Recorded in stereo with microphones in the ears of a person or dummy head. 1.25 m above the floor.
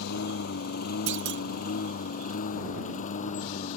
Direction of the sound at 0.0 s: 60° left (ahead or behind).